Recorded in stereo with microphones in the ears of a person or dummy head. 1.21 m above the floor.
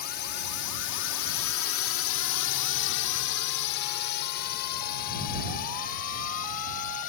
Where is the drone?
50° left (ahead or behind); by 7.1 s 45° left (ahead or behind).